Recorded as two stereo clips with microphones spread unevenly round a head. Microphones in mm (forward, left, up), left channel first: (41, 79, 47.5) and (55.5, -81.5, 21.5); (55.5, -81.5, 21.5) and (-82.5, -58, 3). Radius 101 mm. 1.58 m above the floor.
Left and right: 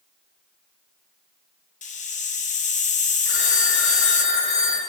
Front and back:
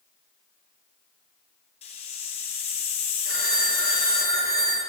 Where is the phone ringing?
125° left, 5 m.